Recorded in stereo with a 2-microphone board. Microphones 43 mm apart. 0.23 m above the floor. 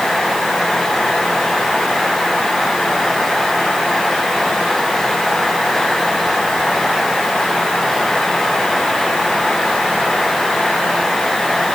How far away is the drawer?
No drawer in this recording.